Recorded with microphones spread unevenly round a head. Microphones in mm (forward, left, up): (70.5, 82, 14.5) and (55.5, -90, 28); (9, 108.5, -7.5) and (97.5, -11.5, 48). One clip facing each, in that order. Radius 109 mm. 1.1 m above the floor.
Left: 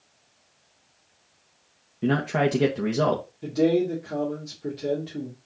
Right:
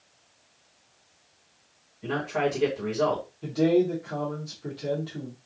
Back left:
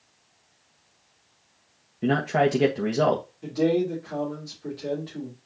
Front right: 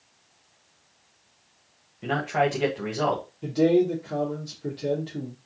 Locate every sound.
2.0 s a man speaking: 100° left, 1.4 m
3.4 s a man speaking: 15° left, 2.5 m